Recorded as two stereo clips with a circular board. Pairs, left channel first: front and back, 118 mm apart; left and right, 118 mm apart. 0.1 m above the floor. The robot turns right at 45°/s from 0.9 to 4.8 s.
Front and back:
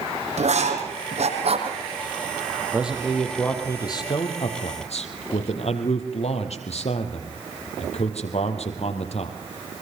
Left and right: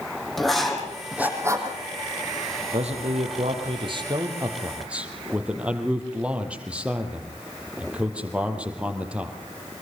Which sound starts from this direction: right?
A man speaking, at 2.7 s.